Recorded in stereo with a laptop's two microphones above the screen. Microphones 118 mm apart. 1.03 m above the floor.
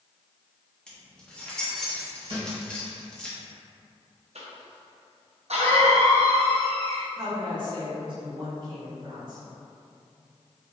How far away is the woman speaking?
About 1.6 m.